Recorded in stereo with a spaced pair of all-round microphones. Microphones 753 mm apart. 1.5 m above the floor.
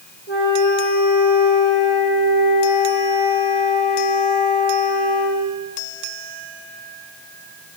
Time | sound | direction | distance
0.3 | a flute | 65° right (ahead or behind) | 7 m